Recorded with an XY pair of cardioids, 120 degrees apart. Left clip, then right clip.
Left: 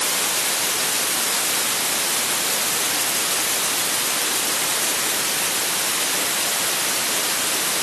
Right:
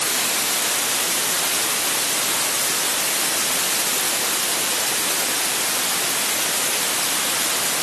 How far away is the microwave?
No microwave in this recording.